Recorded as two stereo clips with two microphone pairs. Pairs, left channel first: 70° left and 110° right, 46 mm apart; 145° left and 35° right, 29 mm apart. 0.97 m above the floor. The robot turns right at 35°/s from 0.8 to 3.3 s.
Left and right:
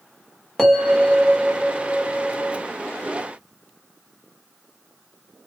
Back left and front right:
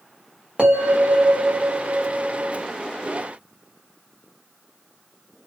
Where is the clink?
I don't hear a clink.